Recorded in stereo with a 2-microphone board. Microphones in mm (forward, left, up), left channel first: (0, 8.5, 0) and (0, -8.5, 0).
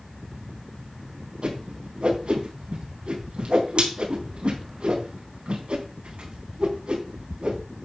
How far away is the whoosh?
About 4 m.